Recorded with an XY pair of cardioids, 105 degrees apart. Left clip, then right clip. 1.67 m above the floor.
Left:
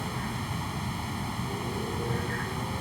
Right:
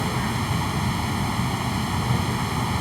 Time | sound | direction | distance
0.0 | a fan | 50° right | ?